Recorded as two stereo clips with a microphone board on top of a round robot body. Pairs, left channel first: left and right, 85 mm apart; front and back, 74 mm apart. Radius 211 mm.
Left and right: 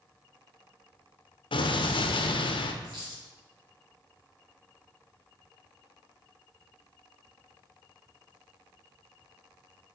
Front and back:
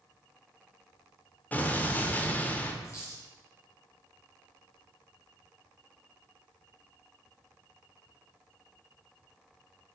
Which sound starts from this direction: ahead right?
A dropped coin, at 2.8 s.